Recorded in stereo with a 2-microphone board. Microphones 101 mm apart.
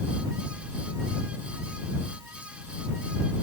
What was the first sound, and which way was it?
Only background noise.